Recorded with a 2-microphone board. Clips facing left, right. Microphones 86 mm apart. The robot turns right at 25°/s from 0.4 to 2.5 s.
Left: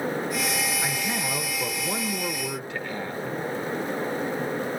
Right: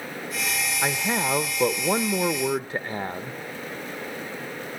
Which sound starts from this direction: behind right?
A man speaking, at 0.8 s.